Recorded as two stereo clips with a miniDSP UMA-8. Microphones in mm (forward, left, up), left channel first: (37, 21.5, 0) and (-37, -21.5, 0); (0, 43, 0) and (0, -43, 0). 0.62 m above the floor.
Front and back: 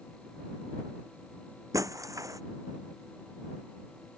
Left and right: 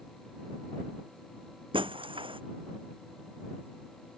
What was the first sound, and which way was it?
Breaking glass, 100° right.